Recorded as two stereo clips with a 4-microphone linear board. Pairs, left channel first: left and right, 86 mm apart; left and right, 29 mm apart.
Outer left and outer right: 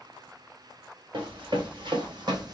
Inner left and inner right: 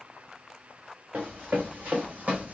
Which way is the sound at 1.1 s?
75° right (ahead or behind).